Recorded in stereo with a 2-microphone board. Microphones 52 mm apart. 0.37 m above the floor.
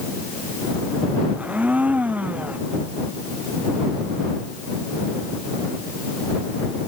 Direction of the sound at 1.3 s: 30° right (ahead or behind).